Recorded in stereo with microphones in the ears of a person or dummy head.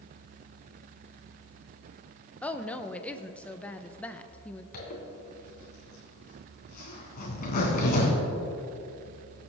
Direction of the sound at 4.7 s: 45° left (ahead or behind).